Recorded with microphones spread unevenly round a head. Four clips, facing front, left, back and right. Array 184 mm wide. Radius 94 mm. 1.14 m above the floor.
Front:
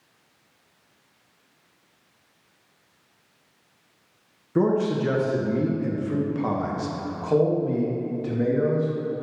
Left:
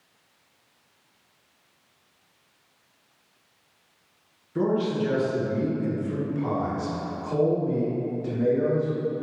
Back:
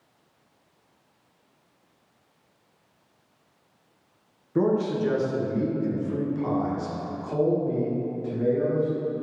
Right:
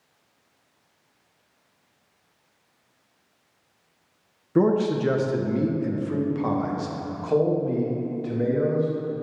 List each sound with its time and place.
4.5 s a man speaking: 80° right, 0.8 m; by 8.9 s 25° right, 2.5 m